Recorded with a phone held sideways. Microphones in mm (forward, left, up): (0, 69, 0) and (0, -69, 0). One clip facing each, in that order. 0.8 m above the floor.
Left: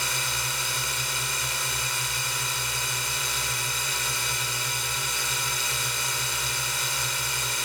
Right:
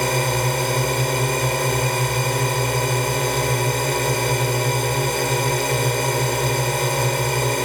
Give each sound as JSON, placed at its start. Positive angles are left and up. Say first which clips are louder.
{"t": 0.0, "sound": "a drone", "louder": "right 14 dB", "side_deg": -60}